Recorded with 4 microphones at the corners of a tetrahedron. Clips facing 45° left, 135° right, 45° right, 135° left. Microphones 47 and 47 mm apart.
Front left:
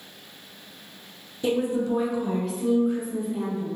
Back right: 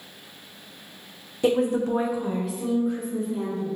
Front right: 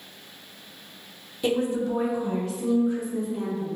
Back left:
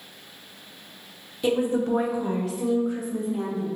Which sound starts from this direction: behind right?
A woman speaking, at 1.4 s.